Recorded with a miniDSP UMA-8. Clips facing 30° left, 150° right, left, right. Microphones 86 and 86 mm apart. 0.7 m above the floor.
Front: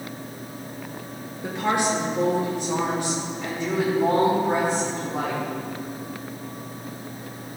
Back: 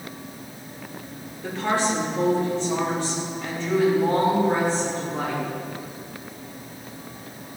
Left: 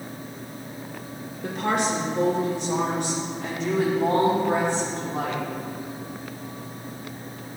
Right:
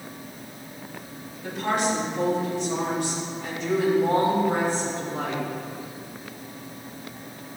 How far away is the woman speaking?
About 2.5 m.